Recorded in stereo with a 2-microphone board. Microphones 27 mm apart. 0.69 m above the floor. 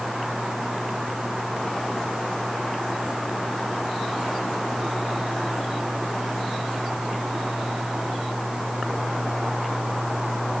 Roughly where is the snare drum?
No snare drum in this recording.